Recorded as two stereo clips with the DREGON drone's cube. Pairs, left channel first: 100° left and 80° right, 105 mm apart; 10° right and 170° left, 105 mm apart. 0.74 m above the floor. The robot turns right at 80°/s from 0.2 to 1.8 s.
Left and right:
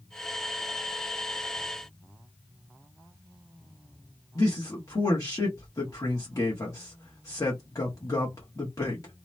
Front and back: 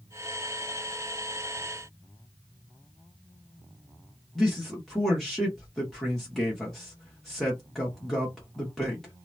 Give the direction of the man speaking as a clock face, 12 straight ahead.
10 o'clock.